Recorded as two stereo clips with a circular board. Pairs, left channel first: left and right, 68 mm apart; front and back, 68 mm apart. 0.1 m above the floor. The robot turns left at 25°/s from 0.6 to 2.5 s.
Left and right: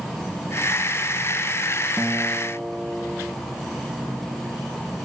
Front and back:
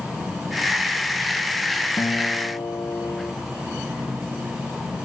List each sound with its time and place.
2.0 s a guitar: 10° right, 1.3 m; by 3.3 s 25° right, 1.3 m